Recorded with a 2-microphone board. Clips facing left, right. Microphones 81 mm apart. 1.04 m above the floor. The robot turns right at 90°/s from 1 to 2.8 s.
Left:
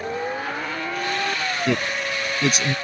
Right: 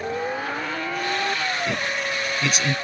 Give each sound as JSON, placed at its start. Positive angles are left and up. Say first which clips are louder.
{"t": 1.7, "sound": "a man speaking", "louder": "left 2 dB", "side_deg": 60}